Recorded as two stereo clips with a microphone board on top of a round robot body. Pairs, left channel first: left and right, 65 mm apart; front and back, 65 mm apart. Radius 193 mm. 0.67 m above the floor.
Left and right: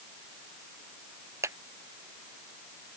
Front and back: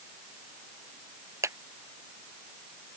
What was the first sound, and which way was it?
A clap, 140° right.